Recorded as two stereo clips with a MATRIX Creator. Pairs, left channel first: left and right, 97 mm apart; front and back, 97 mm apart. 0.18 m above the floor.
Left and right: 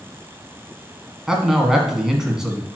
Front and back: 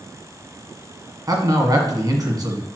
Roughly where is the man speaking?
Behind.